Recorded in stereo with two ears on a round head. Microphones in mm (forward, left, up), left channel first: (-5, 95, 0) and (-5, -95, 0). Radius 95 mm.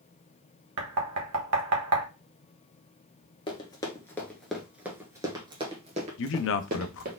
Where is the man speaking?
65° left (ahead or behind), 0.6 m.